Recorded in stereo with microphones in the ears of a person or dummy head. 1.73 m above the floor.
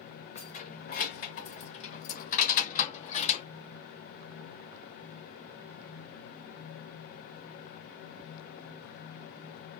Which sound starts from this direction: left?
Keys jangling, at 0.3 s.